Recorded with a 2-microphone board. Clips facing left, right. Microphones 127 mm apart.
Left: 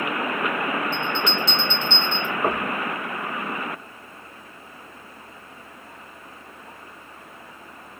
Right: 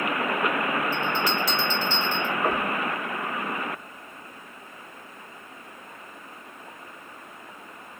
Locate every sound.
0.9 s a bell: 25° left (ahead or behind), 1.6 m
2.4 s knocking: 35° left (ahead or behind), 1.0 m